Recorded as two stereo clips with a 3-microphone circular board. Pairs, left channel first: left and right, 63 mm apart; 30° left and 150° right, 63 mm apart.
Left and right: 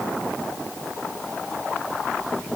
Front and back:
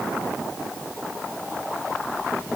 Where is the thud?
I don't hear a thud.